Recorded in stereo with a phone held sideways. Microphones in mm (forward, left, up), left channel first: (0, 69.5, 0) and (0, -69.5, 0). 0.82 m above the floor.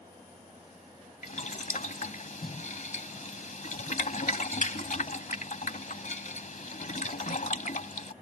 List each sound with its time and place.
1.2 s boiling: 65° left (ahead or behind)